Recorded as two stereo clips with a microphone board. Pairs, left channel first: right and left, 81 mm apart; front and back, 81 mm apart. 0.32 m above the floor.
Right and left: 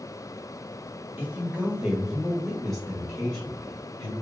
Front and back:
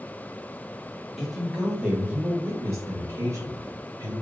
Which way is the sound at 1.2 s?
85° left.